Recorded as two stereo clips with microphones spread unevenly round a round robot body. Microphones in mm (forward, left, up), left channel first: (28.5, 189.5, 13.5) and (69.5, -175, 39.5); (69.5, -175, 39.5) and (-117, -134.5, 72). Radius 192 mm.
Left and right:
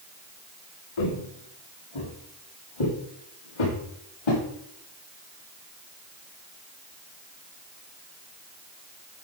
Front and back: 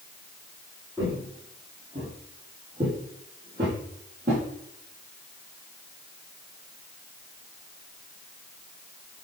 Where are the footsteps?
90° left, 5 m; by 4.4 s 100° left, 7 m.